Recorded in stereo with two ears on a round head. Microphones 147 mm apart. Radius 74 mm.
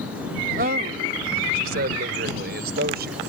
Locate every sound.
0.6 s a man speaking: 55° right (ahead or behind); by 3.2 s 70° right (ahead or behind)